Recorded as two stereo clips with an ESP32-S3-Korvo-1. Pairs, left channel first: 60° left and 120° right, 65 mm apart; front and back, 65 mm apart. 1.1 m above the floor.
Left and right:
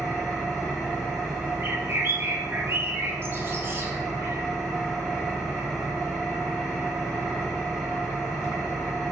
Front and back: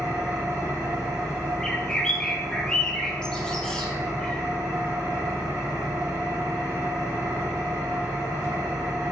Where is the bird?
75° right, 1.1 m.